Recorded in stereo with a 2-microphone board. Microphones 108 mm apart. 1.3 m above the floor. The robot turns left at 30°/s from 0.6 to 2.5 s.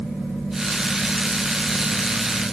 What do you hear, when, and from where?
Only background noise.